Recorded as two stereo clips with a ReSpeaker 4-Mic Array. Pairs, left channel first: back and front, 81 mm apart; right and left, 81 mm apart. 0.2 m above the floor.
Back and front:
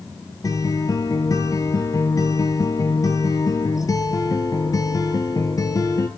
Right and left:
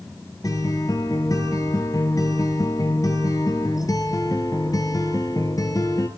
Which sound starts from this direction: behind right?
A guitar, at 0.4 s.